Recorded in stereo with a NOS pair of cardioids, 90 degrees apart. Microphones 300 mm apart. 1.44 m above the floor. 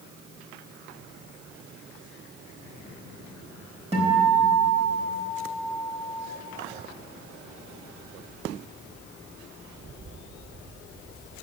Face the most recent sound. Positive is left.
turn(degrees=-20)